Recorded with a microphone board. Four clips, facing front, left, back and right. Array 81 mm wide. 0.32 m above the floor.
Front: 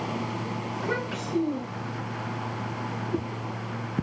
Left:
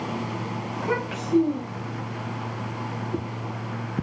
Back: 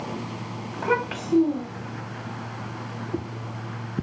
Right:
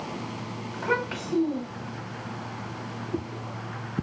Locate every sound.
0.7 s a child speaking: 175° left, 1.1 m